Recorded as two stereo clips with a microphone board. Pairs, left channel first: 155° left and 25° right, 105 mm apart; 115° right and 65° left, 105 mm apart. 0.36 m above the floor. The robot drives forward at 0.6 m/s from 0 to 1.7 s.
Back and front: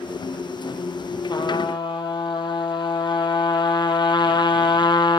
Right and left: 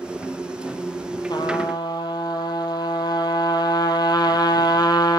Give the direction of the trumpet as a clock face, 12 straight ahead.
5 o'clock.